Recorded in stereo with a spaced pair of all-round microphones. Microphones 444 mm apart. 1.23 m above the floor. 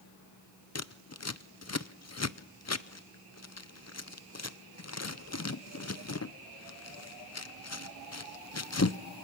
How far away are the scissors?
About 0.6 m.